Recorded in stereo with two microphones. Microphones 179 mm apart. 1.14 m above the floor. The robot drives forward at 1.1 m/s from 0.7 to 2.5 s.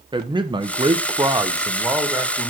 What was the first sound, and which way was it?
A man speaking, 25° right (ahead or behind).